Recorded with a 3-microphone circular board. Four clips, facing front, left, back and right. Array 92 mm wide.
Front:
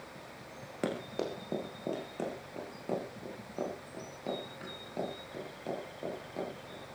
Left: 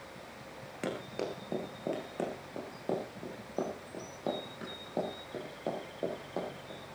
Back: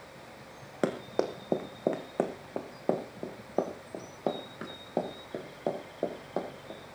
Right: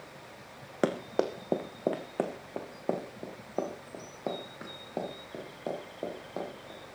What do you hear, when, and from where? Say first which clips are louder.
0.8 s running footsteps: right 8 dB, back 5 dB; 120° right, 2.5 m; by 6.8 s 175° right, 9 m